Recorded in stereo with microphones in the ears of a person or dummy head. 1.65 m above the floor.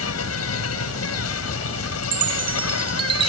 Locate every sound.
0.0 s an insect: 85° left
2.0 s a chime: 25° right (ahead or behind)